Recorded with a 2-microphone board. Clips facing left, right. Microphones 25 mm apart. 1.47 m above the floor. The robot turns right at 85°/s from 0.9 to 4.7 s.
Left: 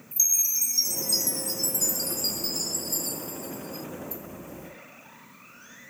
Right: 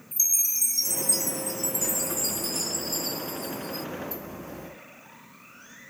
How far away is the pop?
No pop in this recording.